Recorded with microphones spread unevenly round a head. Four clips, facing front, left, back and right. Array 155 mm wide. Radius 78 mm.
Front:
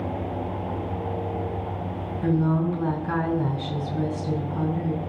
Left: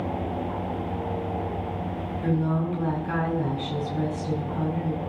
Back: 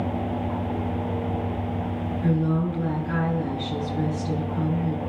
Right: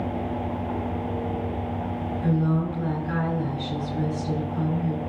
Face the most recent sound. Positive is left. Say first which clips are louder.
# right 1 dB, front 2 dB
turn(degrees=25)